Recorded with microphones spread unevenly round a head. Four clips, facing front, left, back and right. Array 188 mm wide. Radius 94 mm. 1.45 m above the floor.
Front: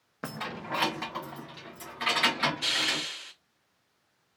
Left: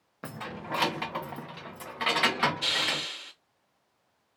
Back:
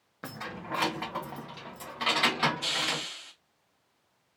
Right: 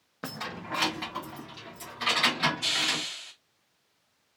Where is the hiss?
90° left, 1.9 m.